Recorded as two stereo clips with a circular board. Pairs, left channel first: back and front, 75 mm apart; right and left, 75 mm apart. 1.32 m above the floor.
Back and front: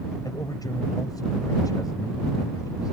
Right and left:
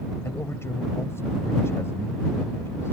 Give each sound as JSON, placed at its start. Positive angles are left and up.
{"t": 0.2, "sound": "a man speaking", "azimuth_deg": -145}